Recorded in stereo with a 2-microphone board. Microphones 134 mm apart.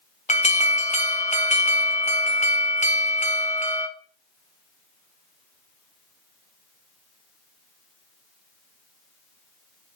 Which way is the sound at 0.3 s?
60° left (ahead or behind).